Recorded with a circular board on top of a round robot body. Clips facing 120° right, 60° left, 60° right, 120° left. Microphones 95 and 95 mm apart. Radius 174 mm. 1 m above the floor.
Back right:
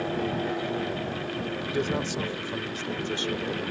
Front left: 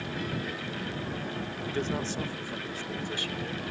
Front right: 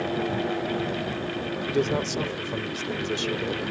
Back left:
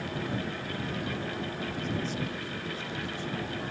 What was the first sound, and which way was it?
A man speaking, 45° right.